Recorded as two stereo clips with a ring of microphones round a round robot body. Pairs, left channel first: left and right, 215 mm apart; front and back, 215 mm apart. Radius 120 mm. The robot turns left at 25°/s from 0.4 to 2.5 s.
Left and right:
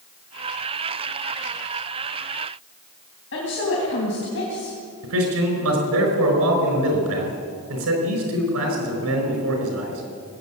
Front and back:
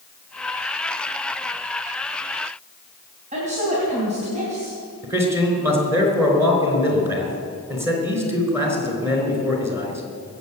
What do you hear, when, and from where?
3.3 s a woman speaking: 120° left, 3.5 m
5.0 s a man speaking: 100° right, 4.5 m